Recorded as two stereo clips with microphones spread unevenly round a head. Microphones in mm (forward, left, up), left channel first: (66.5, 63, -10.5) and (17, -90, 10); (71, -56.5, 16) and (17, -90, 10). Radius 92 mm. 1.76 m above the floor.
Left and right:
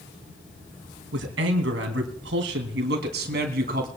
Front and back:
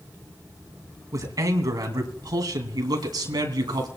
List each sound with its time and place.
1.1 s a man speaking: 125° right, 3 m; by 3.9 s 155° right, 3 m